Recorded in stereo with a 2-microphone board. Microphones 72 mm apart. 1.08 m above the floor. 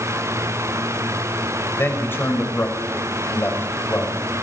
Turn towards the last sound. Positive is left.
turn(degrees=30)  # may be behind; listen again after turning